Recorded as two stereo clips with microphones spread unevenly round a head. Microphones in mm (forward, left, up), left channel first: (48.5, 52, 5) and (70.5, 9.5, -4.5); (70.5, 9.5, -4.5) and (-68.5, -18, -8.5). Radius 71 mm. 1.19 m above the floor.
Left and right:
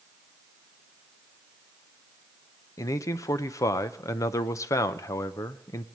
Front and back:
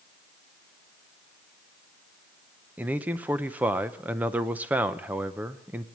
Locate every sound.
2.8 s a man speaking: 115° left, 0.7 m